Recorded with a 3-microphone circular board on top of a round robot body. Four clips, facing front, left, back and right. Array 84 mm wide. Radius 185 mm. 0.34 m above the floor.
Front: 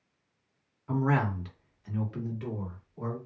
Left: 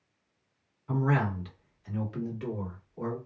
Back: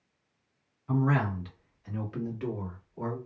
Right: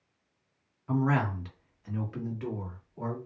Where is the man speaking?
45° right, 1.5 m; by 3.2 s 170° right, 1.5 m.